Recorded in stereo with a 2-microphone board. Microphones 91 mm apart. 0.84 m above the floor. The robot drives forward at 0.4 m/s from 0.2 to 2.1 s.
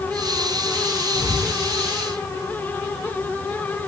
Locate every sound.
1.1 s whispering: 20° left (ahead or behind), 2 m; by 1.5 s 15° left (ahead or behind), 2.5 m